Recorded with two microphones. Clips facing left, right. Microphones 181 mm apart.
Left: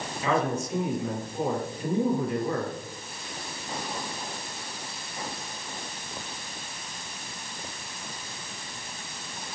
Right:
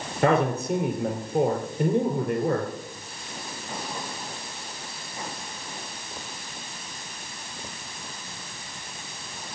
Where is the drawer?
I don't hear a drawer.